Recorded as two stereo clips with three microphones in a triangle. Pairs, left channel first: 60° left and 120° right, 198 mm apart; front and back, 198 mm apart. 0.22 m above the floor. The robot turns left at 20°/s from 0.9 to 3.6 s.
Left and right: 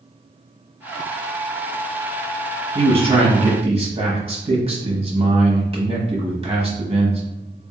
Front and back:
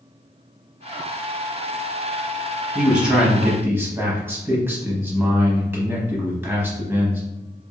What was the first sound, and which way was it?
A man speaking, 95° right.